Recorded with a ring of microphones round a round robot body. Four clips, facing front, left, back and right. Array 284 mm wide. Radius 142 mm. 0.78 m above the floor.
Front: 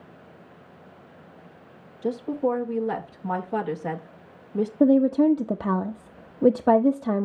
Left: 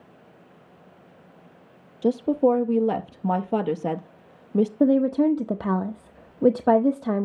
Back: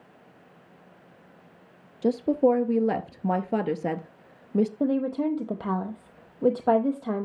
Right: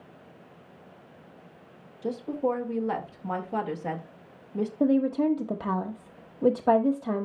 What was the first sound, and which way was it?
A woman speaking, 125° left.